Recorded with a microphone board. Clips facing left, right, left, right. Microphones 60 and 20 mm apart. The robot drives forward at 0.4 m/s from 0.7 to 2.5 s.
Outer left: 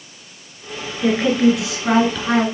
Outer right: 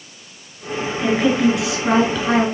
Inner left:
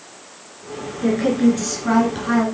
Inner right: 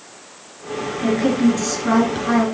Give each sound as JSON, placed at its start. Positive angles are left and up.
{"t": 1.0, "sound": "a woman speaking", "side_deg": 0, "distance_m": 1.5}